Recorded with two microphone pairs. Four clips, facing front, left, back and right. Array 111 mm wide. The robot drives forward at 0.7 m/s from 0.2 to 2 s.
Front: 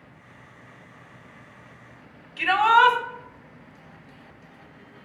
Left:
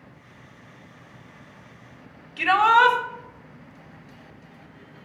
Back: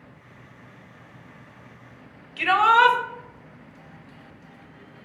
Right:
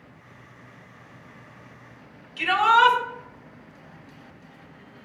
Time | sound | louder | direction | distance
2.4 | a shout | left 1 dB, even | 145° left | 1.7 m